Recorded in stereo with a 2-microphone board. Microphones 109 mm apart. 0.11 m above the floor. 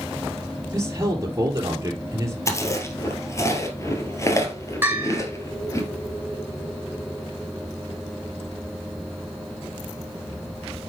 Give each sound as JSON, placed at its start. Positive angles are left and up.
{"t": 0.7, "sound": "a man speaking", "side_deg": -25, "distance_m": 2.5}
{"t": 2.5, "sound": "chewing", "side_deg": 25, "distance_m": 2.0}
{"t": 4.8, "sound": "a bell", "side_deg": -15, "distance_m": 3.5}